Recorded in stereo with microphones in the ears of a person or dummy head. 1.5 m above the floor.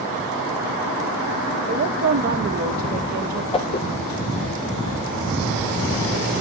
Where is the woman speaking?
50° right (ahead or behind), 1.3 m.